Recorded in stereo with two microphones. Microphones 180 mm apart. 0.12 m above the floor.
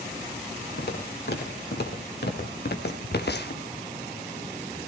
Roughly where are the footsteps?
Left.